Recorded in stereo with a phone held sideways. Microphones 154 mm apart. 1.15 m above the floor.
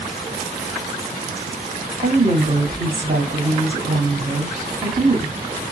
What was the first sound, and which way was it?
A woman speaking, 85° right.